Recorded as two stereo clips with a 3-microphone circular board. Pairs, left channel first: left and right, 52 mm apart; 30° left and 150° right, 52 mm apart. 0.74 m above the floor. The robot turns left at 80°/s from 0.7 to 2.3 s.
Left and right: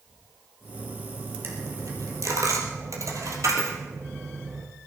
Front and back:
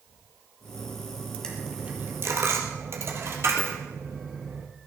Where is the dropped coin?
45° right, 3 m; by 4.7 s 115° right, 3 m.